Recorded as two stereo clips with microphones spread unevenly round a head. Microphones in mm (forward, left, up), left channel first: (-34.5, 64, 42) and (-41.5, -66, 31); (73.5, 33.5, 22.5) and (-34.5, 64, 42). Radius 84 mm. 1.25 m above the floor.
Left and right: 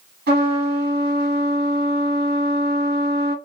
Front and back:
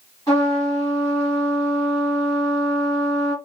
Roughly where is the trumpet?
Right.